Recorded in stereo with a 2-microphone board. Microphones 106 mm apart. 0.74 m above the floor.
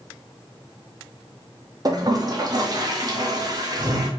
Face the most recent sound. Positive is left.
turn(degrees=-40)  # may be behind; listen again after turning